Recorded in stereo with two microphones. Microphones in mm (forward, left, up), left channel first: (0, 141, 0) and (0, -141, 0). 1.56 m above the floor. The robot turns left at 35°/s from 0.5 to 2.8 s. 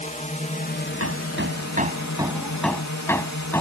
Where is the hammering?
55° right (ahead or behind); by 3.6 s 10° left (ahead or behind).